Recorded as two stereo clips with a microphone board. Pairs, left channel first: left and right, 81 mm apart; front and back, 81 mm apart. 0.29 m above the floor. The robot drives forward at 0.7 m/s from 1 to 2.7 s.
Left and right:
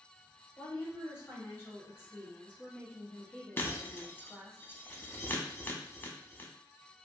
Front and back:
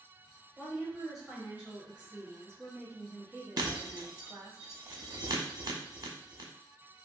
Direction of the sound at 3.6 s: 150° left.